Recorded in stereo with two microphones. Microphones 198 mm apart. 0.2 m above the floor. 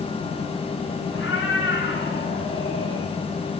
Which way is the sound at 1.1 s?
75° left (ahead or behind).